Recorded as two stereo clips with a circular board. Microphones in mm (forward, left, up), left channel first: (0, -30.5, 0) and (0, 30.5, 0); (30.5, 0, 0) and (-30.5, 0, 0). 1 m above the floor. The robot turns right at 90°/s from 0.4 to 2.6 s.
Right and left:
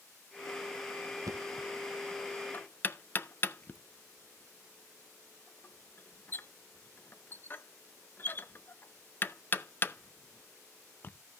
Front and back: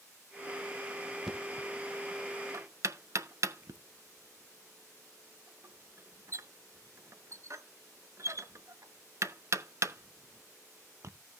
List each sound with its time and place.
1.3 s knocking: 95° left, 0.5 m; by 11.1 s 145° right, 0.5 m